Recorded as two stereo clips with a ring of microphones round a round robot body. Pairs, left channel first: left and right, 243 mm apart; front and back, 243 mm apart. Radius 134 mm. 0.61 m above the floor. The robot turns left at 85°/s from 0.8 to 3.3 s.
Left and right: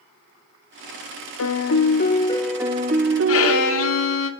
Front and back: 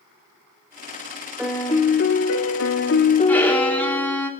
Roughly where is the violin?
Left.